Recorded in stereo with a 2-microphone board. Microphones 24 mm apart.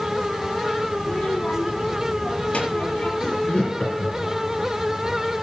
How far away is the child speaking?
About 5 m.